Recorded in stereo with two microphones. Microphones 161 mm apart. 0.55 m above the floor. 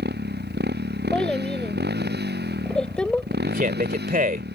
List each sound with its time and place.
0.0 s a motorcycle: 90° right
1.1 s a child speaking: 5° left (ahead or behind)
3.5 s a man speaking: 55° right (ahead or behind)